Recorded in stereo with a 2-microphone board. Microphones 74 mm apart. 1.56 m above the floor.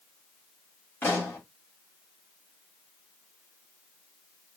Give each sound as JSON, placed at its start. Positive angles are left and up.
{"t": 1.0, "sound": "a pop", "side_deg": 30, "distance_m": 3.0}